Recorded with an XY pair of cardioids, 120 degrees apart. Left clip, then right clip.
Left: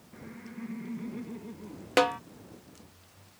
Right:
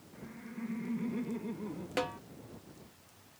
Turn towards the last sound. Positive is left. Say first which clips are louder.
# left 11 dB
turn(degrees=55)